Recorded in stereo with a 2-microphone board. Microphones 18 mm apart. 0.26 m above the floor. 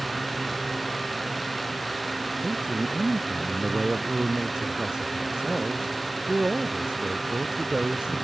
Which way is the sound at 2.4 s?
55° right (ahead or behind).